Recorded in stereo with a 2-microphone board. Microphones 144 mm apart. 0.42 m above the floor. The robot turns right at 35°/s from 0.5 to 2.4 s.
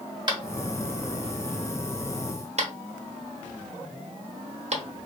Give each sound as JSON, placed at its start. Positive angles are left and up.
{"t": 0.3, "sound": "tapping", "side_deg": -35, "distance_m": 0.8}